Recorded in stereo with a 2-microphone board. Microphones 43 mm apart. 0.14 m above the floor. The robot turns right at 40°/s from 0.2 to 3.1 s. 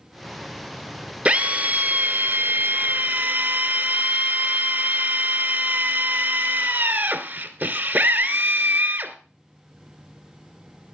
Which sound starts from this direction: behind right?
A drill, at 1.2 s.